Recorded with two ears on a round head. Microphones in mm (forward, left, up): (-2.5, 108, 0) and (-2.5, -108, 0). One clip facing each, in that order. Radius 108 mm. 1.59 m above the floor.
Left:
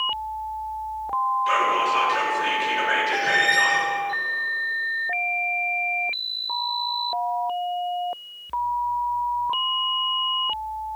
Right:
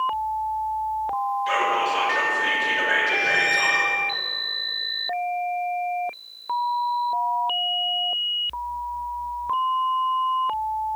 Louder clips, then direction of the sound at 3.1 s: Left 1 dB; 65° left (ahead or behind).